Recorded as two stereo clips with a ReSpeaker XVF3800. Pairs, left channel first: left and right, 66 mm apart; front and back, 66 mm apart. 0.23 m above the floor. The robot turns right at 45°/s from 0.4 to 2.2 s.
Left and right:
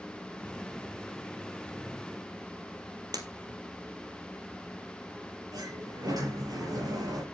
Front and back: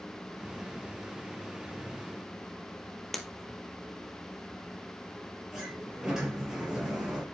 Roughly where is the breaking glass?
Right.